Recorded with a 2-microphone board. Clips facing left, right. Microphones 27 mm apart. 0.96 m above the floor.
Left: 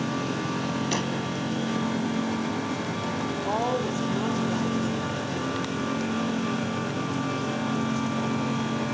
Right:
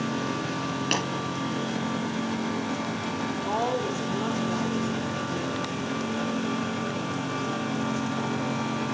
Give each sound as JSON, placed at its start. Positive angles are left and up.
{"t": 0.9, "sound": "tapping", "side_deg": -75, "distance_m": 4.0}
{"t": 3.4, "sound": "a woman speaking", "side_deg": -30, "distance_m": 2.5}